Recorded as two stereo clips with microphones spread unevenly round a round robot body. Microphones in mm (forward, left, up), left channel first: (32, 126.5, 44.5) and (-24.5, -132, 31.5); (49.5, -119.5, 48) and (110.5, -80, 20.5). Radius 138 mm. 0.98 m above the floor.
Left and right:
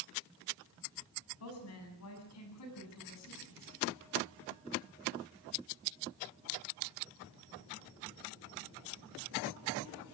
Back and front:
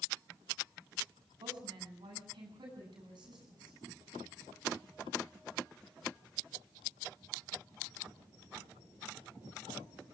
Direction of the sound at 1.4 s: 45° left.